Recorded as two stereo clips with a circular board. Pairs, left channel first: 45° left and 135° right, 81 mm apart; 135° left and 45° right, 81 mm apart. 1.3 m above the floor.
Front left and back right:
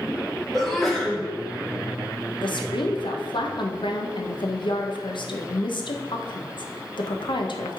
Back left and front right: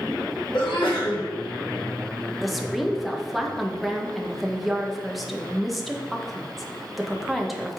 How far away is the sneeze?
About 2.5 m.